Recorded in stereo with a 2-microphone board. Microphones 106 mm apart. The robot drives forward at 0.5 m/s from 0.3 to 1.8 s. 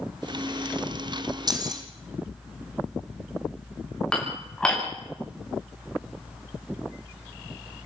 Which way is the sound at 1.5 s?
40° right (ahead or behind).